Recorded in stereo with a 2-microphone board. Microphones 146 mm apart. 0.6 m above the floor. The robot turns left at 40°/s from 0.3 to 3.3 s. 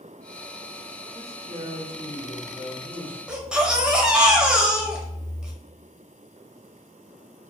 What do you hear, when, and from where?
1.1 s a man speaking: 55° right, 1.2 m; by 3.2 s 135° right, 1.2 m
3.3 s a baby crying: 5° right (ahead or behind), 0.7 m